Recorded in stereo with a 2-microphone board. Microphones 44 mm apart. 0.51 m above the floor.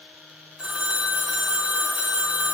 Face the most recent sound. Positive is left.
turn(degrees=-25)  # may be behind; listen again after turning